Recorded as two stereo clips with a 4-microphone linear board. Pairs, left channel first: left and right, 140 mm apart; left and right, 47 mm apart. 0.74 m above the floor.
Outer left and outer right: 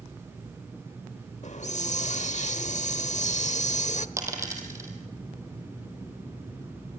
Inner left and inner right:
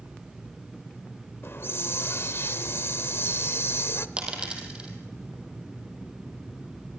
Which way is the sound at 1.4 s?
60° left (ahead or behind).